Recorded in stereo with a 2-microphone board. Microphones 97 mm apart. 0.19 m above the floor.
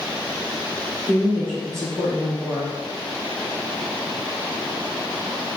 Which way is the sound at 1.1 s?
5° left (ahead or behind).